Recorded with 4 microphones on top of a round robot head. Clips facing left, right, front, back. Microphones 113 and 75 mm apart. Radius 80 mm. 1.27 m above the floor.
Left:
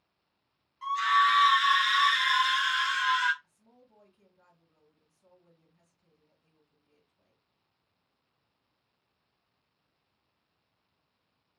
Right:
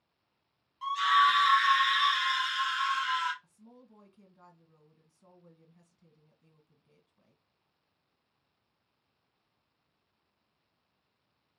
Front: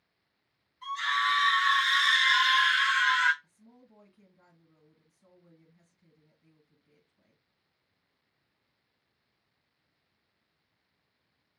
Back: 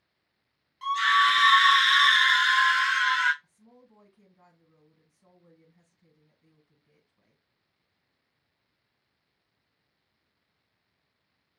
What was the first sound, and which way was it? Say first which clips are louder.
A scream: even, back 7 dB; 165° right.